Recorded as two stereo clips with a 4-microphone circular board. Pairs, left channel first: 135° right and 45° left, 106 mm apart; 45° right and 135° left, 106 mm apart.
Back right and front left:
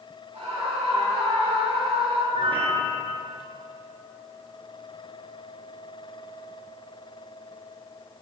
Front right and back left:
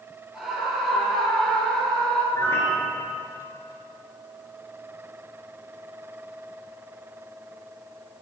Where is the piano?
20° left, 4 m.